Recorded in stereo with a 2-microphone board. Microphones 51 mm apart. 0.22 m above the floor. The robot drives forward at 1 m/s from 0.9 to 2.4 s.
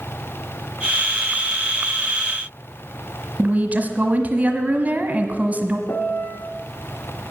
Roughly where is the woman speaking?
Right.